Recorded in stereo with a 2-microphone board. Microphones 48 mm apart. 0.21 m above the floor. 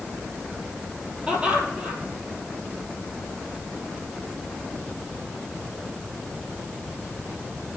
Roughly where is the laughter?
Right.